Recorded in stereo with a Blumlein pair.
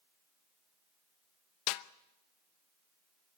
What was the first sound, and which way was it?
A snare drum, 45° left.